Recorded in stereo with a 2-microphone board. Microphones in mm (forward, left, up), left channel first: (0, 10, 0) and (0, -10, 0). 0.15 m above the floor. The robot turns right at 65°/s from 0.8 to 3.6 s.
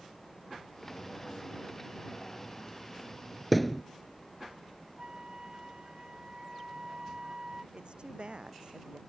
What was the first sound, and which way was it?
A thud, centre (ahead or behind).